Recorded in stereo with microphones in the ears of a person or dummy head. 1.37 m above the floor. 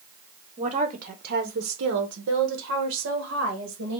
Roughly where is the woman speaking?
Right.